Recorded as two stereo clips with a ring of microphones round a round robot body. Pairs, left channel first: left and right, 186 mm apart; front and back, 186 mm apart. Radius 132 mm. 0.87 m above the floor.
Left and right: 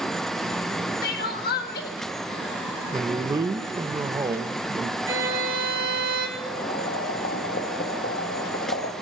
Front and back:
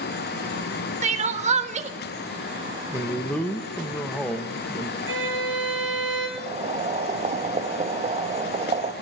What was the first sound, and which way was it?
Crying, 130° left.